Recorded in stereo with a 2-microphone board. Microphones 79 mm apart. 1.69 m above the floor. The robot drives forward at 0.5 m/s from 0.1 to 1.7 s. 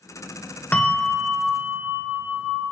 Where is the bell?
20° left (ahead or behind), 1.0 m; by 2.6 s 15° left (ahead or behind), 1.5 m.